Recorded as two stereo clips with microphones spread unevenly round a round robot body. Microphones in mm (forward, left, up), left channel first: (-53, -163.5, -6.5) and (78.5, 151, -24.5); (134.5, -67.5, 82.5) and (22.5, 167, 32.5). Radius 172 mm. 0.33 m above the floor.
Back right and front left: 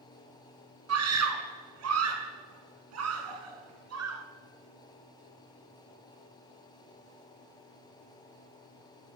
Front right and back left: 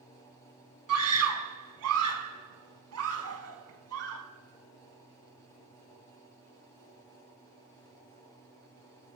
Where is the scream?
115° left, 4 m.